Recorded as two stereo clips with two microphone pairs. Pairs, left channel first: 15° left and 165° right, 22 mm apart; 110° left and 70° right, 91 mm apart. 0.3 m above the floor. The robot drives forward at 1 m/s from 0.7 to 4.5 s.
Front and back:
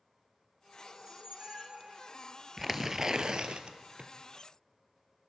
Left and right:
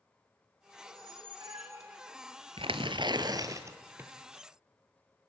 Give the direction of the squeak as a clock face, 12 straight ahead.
3 o'clock.